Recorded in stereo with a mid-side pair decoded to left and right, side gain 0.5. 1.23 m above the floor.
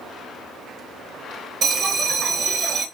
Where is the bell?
55° right, 0.9 m.